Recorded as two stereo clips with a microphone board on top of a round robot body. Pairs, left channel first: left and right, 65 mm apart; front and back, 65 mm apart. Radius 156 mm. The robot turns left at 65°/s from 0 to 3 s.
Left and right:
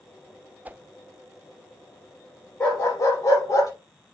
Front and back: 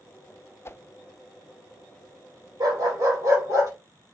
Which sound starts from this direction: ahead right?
A whoosh, at 0.7 s.